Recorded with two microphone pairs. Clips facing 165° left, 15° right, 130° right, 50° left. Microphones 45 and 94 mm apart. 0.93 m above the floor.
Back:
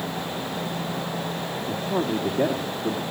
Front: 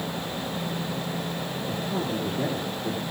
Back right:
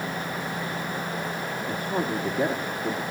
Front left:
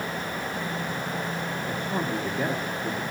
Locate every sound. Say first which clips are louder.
1.7 s a man speaking: back 5 dB, back right 2 dB; 145° left, 2.5 m